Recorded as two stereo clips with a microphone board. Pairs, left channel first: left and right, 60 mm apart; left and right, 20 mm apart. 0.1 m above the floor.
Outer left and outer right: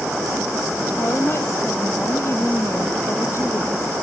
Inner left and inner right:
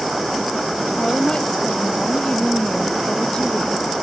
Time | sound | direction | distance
1.0 | a woman speaking | 50° left (ahead or behind) | ?